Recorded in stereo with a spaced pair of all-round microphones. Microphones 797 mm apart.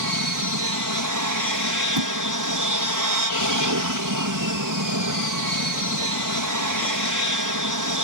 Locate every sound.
0.0 s an aircraft: 25° right (ahead or behind)
2.0 s a thud: 35° right (ahead or behind)